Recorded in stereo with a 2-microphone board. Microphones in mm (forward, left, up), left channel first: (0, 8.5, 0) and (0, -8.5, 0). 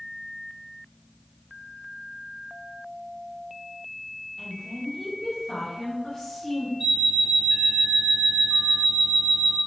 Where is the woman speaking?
10° left (ahead or behind), 1.2 m.